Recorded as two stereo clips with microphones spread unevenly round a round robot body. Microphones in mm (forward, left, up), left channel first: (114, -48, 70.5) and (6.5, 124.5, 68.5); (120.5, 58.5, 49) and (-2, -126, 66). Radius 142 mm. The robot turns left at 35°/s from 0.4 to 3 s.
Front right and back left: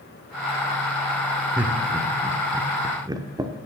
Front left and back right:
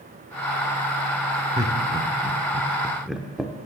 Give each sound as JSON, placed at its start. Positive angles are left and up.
{"t": 1.6, "sound": "laughter", "azimuth_deg": -170, "distance_m": 0.9}